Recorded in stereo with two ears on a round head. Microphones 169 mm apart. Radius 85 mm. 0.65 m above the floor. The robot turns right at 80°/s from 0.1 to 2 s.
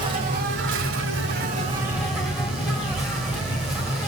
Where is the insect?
155° right, 1.6 m; by 4.1 s straight ahead, 1.6 m.